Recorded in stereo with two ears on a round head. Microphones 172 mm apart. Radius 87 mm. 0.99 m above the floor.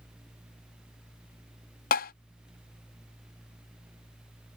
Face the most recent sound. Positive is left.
turn(degrees=50)  # may be behind; listen again after turning